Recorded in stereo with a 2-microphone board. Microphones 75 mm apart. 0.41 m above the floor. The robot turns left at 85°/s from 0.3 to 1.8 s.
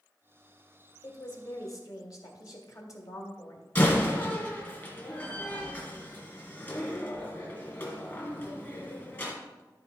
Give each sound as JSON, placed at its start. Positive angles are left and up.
{"t": 1.0, "sound": "a woman speaking", "azimuth_deg": 120, "distance_m": 2.0}
{"t": 3.8, "sound": "a door slam", "side_deg": 30, "distance_m": 2.5}